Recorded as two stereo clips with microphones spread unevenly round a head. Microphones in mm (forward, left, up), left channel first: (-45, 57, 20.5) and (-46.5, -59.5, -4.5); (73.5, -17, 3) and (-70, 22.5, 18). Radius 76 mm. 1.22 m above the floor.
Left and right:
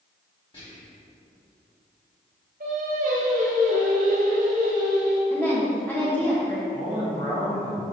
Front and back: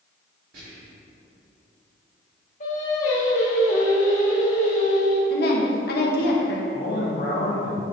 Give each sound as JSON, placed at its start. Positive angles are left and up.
{"t": 0.5, "sound": "whispering", "azimuth_deg": 135, "distance_m": 2.5}
{"t": 2.6, "sound": "singing", "azimuth_deg": -60, "distance_m": 1.6}
{"t": 5.3, "sound": "a woman speaking", "azimuth_deg": 10, "distance_m": 1.2}
{"t": 6.7, "sound": "a man speaking", "azimuth_deg": 20, "distance_m": 1.9}